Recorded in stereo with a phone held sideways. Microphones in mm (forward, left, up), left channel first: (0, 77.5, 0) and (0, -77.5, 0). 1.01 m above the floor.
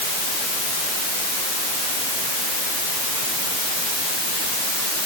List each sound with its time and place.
Only background noise.